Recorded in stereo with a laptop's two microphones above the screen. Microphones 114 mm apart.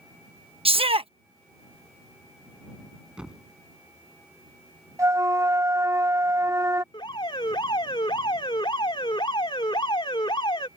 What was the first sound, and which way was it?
A shout, 60° right (ahead or behind).